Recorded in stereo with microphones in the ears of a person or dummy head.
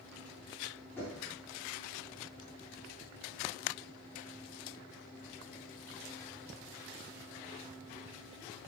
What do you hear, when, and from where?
1.0 s knocking: 10° left (ahead or behind), 4 m